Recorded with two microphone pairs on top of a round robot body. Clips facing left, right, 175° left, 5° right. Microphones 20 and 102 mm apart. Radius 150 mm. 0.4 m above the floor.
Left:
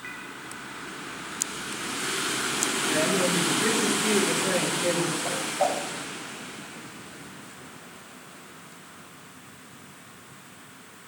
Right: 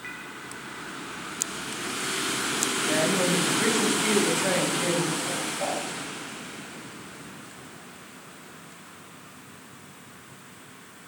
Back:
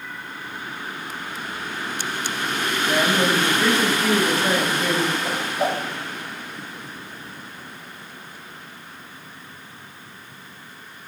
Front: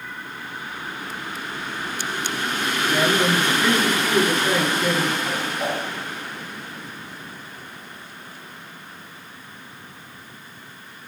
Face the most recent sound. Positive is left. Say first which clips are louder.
# left 3 dB, back 2 dB
turn(degrees=120)